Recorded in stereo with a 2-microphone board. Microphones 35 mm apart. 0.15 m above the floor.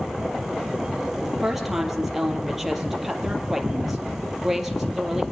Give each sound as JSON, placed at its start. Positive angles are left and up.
{"t": 1.2, "sound": "a woman speaking", "side_deg": -5, "distance_m": 3.5}